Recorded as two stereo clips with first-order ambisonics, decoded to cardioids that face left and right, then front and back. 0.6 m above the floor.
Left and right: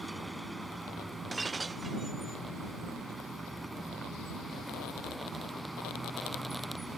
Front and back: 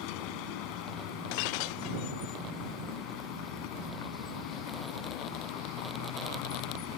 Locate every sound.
0.0 s a vehicle: 5° right
1.3 s breaking glass: 10° right